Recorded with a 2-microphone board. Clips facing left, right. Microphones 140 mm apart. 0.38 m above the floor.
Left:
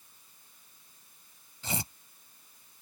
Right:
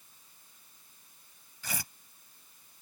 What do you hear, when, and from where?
1.6 s tearing paper: 25° left (ahead or behind)